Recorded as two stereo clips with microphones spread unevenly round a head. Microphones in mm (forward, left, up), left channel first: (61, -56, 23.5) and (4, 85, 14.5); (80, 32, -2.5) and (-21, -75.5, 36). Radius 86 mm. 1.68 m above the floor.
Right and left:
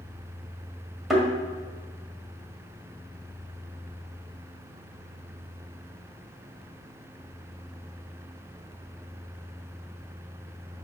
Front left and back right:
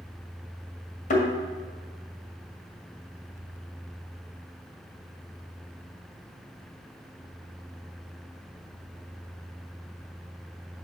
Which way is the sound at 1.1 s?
20° left.